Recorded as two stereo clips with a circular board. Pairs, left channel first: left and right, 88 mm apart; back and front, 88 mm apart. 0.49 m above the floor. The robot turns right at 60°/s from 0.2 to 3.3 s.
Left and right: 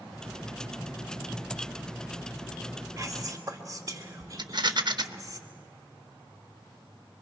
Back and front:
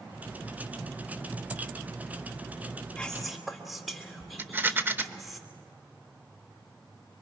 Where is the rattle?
65° right, 0.7 m.